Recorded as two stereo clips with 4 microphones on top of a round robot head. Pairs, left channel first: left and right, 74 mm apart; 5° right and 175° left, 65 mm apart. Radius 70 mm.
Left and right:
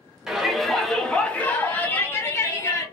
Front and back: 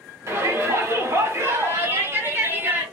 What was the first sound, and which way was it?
A shout, 165° right.